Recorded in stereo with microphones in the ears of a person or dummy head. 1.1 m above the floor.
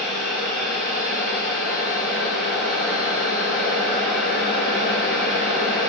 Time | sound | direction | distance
0.0 | a machine running | 55° left (ahead or behind) | 5 m